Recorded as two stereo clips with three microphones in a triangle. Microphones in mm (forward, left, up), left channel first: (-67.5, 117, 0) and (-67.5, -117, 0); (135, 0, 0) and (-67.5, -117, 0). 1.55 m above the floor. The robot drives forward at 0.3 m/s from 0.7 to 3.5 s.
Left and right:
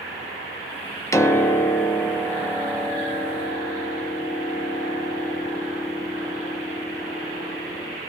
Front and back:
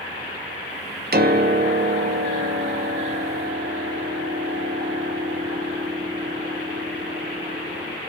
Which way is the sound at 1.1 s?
170° left.